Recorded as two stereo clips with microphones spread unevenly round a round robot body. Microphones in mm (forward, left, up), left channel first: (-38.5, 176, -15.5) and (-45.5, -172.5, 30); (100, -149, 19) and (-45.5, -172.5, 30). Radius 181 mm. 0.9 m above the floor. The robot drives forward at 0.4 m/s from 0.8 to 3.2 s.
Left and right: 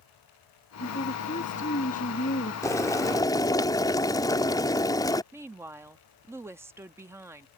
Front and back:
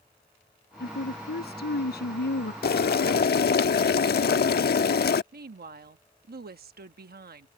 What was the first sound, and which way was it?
A woman speaking, 15° left.